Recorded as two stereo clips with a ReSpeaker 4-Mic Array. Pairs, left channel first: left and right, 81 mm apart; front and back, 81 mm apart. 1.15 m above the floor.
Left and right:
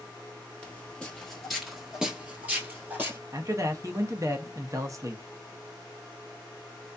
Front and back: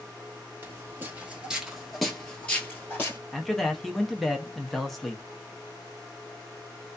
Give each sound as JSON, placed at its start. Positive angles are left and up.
{"t": 0.6, "sound": "footsteps", "azimuth_deg": 150, "distance_m": 1.3}
{"t": 3.3, "sound": "a man speaking", "azimuth_deg": -85, "distance_m": 0.6}